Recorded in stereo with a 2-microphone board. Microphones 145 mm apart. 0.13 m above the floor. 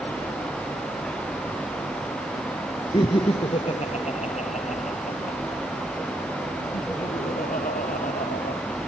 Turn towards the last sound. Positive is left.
turn(degrees=70)  # may be behind; listen again after turning